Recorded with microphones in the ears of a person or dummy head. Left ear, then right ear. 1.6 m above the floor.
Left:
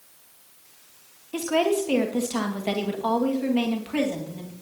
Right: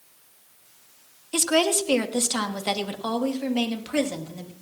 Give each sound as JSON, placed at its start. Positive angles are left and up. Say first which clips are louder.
{"t": 1.3, "sound": "a woman speaking", "louder": "right 1 dB", "side_deg": -40, "distance_m": 1.2}